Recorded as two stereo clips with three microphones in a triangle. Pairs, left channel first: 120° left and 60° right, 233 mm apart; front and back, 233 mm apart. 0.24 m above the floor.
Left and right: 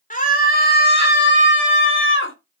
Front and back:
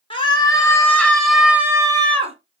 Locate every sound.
0.1 s a scream: 65° left, 4 m; by 2.4 s 125° left, 3 m